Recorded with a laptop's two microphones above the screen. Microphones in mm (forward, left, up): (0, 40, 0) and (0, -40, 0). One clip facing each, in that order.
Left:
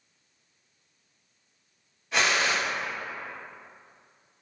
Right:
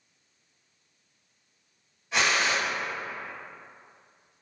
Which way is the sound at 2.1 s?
Centre (ahead or behind).